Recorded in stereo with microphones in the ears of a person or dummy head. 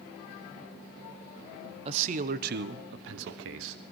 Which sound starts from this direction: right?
A man speaking, at 1.9 s.